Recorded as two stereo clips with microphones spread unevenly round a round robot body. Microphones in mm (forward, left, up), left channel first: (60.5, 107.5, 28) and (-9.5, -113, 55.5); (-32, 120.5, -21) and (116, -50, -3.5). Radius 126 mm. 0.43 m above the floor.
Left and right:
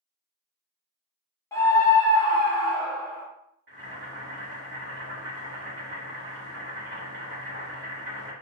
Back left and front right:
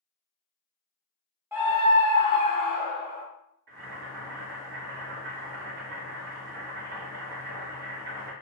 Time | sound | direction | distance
1.5 | a scream | 30° left | 1.0 m
3.7 | boiling | 60° right | 1.5 m